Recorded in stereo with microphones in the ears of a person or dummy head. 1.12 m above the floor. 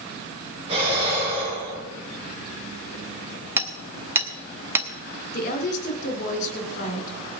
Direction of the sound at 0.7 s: 35° right (ahead or behind).